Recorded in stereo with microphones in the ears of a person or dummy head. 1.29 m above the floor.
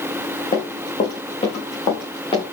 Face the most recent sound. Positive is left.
turn(degrees=30)  # may be behind; listen again after turning